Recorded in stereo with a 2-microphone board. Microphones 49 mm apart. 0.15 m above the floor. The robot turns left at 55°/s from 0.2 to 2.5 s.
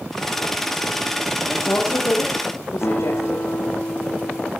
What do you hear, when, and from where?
1.5 s a woman speaking: 130° left, 5.5 m; by 3.5 s 70° left, 5.5 m
2.8 s a guitar: 40° left (ahead or behind), 5 m